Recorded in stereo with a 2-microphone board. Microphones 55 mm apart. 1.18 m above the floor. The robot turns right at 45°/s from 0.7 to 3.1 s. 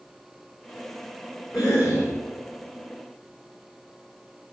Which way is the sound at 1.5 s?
5° right (ahead or behind).